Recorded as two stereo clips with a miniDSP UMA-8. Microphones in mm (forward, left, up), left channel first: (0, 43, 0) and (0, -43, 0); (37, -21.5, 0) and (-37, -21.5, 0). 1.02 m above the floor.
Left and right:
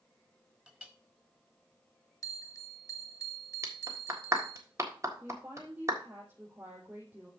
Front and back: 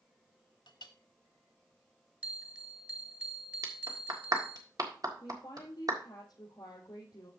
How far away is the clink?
About 1.1 m.